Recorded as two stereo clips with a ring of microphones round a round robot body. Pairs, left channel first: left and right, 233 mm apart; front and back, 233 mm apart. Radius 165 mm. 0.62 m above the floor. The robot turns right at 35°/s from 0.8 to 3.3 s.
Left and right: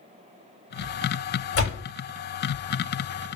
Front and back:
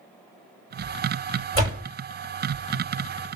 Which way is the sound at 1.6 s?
110° left.